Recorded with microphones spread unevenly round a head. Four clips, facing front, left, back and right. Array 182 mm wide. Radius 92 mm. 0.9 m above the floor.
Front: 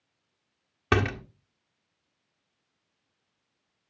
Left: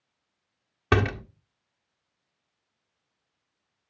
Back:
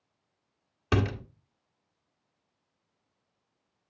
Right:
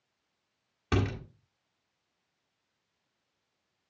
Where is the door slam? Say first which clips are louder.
Left 7 dB, front 3 dB; 40° left, 1.5 m.